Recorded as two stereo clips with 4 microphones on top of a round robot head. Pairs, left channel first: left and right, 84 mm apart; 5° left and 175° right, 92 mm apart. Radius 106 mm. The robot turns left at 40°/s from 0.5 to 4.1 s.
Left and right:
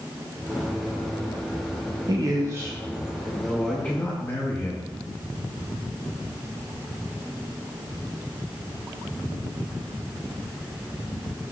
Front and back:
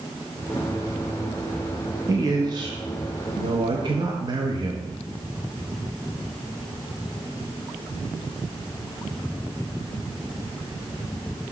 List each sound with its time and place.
2.1 s a man speaking: 125° right, 0.7 m; by 4.9 s 155° left, 0.7 m